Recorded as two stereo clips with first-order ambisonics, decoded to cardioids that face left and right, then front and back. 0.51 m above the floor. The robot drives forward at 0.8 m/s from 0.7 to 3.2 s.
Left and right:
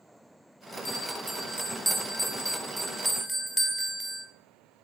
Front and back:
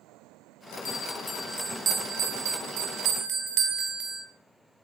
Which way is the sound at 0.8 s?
Straight ahead.